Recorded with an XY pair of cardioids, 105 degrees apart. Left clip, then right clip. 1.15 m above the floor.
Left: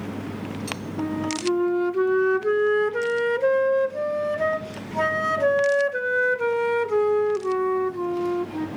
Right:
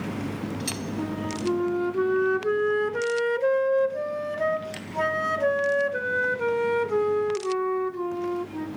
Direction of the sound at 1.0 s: 15° left.